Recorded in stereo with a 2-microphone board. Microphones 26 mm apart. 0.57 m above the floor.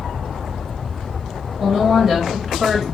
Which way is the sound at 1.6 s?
25° right (ahead or behind).